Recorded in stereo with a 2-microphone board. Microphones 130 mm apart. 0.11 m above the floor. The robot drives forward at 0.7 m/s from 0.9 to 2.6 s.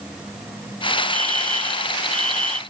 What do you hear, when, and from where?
1.1 s a fire alarm: 70° left (ahead or behind)